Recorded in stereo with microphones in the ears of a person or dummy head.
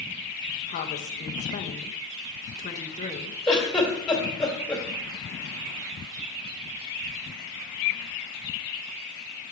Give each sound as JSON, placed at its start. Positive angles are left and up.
{"t": 0.7, "sound": "a woman speaking", "side_deg": 30, "distance_m": 0.6}
{"t": 3.5, "sound": "a giggle", "side_deg": 5, "distance_m": 2.0}